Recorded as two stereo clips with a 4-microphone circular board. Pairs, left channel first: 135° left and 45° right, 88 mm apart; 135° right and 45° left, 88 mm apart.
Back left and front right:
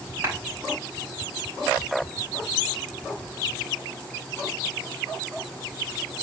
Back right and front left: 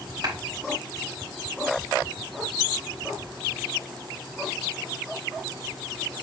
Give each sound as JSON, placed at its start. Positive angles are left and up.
{"t": 0.2, "sound": "a clap", "azimuth_deg": 15, "distance_m": 3.5}